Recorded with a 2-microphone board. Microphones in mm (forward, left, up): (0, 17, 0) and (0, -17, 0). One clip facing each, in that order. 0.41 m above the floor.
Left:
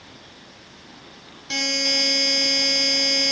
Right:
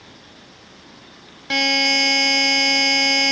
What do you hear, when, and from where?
1.5 s a buzzer: 45° right (ahead or behind), 1.9 m